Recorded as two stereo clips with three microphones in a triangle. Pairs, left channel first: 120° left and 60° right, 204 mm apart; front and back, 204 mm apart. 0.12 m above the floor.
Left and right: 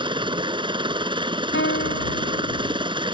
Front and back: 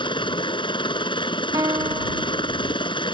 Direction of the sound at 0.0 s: 30° right.